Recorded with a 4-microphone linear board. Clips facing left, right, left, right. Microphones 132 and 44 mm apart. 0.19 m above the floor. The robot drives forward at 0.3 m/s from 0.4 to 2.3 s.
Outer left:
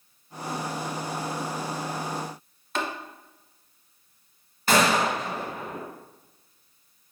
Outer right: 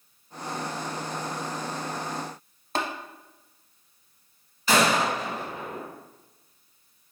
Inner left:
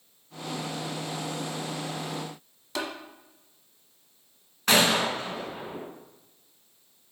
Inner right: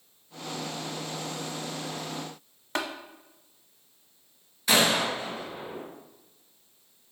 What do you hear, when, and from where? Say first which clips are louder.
2.8 s tapping: outer right 1 dB, inner right 1 dB; 35° right (ahead or behind), 0.6 m
4.7 s a gunshot: outer left 1 dB, inner left 1 dB; 50° left (ahead or behind), 1.5 m